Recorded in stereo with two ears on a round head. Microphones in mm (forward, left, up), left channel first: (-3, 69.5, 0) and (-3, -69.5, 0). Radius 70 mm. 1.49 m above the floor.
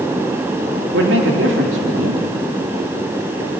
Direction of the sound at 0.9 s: 90° right.